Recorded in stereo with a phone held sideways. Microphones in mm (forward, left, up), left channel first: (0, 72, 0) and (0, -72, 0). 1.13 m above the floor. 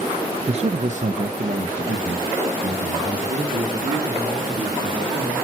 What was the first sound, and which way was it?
A man speaking, 40° right (ahead or behind).